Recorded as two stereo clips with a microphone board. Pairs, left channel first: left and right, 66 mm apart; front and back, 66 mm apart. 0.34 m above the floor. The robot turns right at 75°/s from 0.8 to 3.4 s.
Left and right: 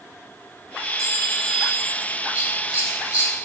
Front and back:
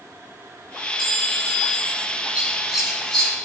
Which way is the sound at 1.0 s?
100° right.